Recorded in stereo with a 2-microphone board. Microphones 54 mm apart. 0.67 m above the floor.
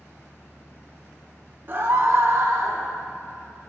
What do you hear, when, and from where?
1.7 s a scream: 40° right (ahead or behind), 0.7 m; by 2.8 s 60° right (ahead or behind), 1.3 m